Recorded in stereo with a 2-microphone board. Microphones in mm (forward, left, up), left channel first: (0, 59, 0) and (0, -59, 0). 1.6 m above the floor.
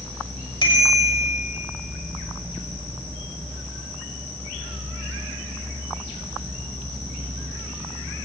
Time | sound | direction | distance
0.6 | a bicycle bell | 45° left (ahead or behind) | 5.5 m